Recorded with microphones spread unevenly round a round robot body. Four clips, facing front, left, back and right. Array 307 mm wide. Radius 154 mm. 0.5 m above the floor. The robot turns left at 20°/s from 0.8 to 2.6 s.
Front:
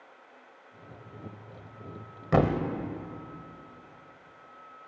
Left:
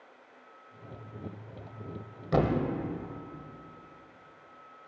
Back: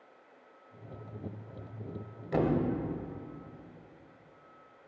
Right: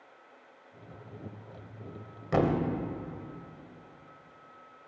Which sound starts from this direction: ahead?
A thud, at 2.3 s.